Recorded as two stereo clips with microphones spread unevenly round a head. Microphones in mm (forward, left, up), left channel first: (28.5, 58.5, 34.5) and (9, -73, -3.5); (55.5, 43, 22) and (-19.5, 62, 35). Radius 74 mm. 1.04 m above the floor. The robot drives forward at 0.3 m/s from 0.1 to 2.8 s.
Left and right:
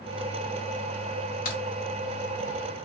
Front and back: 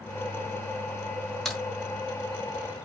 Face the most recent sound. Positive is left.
turn(degrees=85)